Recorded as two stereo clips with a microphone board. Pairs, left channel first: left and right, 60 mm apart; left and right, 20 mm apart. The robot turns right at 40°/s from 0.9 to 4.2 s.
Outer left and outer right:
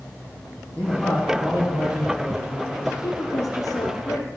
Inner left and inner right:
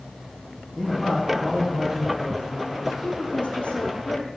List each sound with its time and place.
0.8 s a man speaking: 165° left, 7 m; by 2.9 s 110° right, 7 m
3.0 s a woman speaking: 60° left, 4.5 m; by 4.3 s 110° left, 4.5 m